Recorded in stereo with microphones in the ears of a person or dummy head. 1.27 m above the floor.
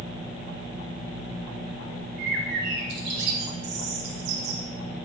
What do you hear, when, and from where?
2.2 s a bird: 65° right (ahead or behind), 3 m